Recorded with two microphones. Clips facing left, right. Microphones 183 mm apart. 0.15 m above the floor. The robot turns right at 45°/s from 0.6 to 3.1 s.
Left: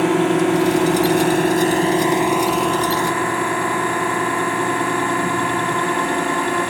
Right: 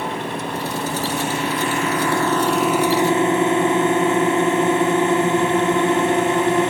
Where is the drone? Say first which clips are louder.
Left 11 dB; 90° left; by 6.7 s 155° right.